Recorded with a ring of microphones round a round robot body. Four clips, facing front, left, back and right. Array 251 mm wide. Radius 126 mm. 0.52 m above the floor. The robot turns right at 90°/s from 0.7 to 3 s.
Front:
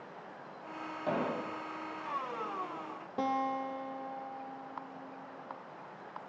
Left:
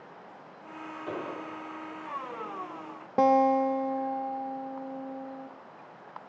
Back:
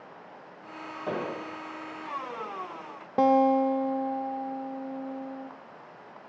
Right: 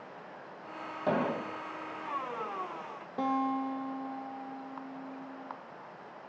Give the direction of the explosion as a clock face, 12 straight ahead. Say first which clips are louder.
Right 7 dB, back 1 dB; 3 o'clock.